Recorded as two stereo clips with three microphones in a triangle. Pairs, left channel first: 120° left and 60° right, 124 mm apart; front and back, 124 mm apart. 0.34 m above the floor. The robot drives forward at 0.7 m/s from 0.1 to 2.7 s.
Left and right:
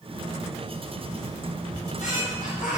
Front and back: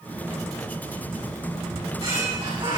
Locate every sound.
1.7 s a squeak: 125° left, 9 m; by 2.8 s 130° left, 9.5 m